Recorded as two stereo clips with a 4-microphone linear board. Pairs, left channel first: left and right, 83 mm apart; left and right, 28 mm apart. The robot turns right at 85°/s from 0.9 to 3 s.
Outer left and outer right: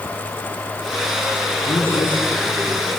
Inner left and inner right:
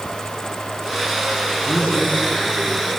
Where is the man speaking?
75° left, 7 m; by 2.9 s straight behind, 7 m.